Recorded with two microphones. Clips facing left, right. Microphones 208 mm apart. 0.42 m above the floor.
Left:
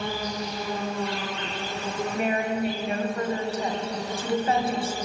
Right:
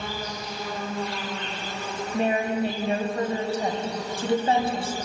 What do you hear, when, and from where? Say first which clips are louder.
0.0 s an insect: left 3 dB; 75° left (ahead or behind), 3.5 m
2.1 s a woman speaking: right 3 dB; 30° right (ahead or behind), 1.9 m